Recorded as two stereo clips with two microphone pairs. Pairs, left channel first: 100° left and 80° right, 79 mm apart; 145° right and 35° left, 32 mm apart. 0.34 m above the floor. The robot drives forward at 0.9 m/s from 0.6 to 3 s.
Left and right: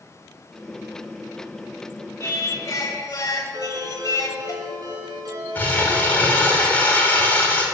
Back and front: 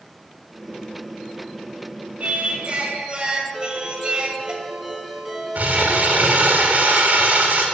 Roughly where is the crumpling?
Ahead left.